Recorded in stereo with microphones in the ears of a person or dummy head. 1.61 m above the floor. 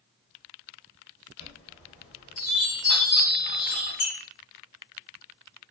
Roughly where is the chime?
Left.